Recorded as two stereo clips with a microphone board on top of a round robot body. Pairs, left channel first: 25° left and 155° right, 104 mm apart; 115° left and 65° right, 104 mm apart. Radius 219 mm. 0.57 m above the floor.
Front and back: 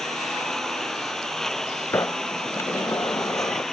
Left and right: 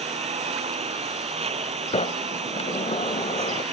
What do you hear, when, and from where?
0.0 s a lawn mower: 65° right
1.9 s a sliding door: 90° left